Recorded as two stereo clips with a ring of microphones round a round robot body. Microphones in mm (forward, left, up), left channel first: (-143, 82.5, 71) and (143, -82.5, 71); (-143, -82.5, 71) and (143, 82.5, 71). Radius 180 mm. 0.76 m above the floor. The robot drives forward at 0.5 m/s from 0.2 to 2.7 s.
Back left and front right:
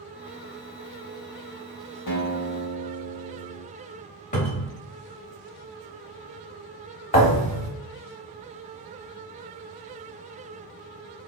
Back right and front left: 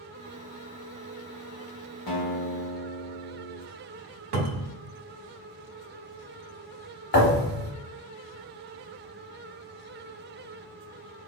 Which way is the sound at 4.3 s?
80° left.